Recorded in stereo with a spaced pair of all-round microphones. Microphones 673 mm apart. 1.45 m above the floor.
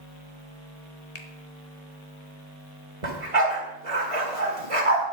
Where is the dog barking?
50° right (ahead or behind), 2.5 m.